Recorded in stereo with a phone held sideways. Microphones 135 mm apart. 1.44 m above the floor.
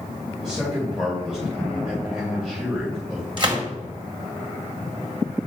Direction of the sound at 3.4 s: 40° right (ahead or behind).